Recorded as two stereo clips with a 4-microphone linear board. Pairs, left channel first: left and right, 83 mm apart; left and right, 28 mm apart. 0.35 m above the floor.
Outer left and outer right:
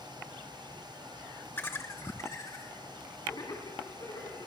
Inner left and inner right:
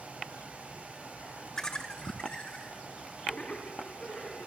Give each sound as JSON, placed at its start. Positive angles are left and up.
{"t": 1.6, "sound": "laughter", "side_deg": 25, "distance_m": 0.9}